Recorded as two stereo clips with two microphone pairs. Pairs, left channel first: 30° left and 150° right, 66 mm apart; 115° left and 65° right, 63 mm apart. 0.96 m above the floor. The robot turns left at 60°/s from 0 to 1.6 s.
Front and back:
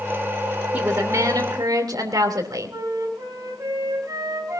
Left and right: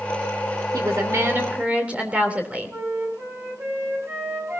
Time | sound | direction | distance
0.7 | a woman speaking | 85° right | 2.5 m
2.7 | a flute | 115° right | 7.5 m